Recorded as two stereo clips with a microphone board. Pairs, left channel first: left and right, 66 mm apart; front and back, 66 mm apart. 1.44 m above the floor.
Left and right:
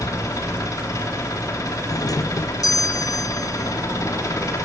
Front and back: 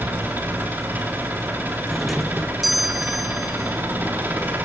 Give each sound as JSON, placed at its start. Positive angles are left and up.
{"t": 0.0, "sound": "an engine running", "azimuth_deg": 120, "distance_m": 3.0}
{"t": 1.9, "sound": "a doorbell", "azimuth_deg": 90, "distance_m": 0.5}